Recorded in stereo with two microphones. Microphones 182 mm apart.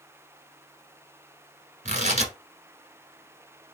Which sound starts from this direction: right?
Tearing paper, at 1.9 s.